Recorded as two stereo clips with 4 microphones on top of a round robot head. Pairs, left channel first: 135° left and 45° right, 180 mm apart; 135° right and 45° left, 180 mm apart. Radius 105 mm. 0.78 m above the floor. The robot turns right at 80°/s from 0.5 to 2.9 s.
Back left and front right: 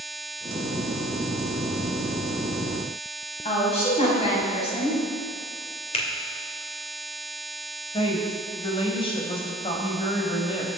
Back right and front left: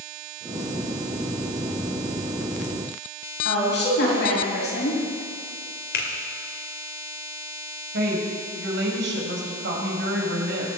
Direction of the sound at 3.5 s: 165° right.